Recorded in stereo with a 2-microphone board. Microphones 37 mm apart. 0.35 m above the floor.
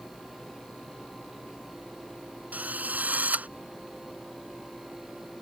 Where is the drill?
45° right (ahead or behind).